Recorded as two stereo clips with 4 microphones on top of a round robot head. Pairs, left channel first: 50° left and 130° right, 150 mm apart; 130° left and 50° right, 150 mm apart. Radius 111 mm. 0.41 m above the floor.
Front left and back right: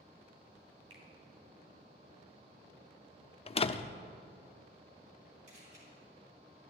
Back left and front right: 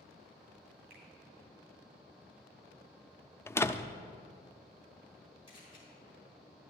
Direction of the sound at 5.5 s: 175° right.